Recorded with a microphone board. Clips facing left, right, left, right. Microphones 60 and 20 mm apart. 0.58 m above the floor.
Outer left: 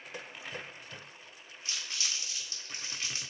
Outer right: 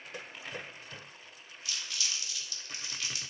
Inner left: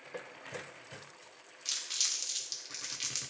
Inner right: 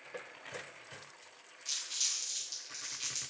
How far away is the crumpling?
About 1.8 m.